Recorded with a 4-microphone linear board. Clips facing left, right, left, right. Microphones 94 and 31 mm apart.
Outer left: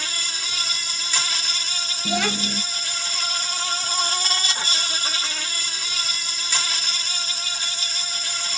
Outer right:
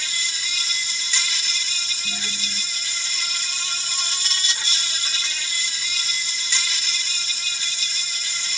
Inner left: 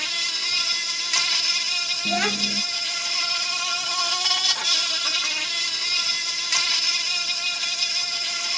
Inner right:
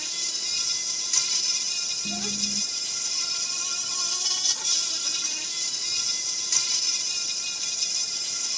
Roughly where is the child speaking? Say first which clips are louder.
Outer left 14 dB, inner left 11 dB; left.